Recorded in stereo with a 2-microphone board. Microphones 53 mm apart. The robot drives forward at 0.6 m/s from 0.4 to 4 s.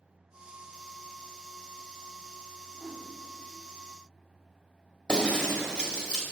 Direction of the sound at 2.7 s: 10° left (ahead or behind).